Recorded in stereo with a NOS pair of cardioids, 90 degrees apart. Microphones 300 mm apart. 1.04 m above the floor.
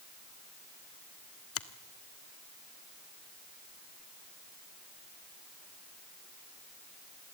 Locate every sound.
1.6 s a finger snap: 45° left, 1.5 m